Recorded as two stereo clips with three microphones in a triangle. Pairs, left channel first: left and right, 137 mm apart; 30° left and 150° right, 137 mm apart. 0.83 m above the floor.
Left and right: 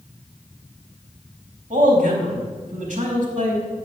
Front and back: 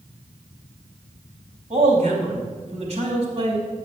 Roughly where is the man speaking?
Right.